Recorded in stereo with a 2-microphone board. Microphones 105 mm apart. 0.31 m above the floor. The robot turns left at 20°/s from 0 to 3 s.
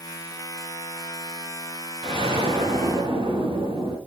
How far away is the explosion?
About 5 m.